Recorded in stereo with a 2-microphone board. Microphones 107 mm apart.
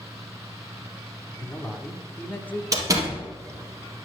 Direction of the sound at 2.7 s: 30° right (ahead or behind).